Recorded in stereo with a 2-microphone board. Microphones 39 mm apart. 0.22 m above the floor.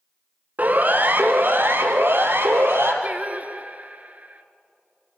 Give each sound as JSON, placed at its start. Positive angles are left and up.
{"t": 0.6, "sound": "a siren", "side_deg": -45, "distance_m": 2.0}
{"t": 3.0, "sound": "singing", "side_deg": -40, "distance_m": 1.4}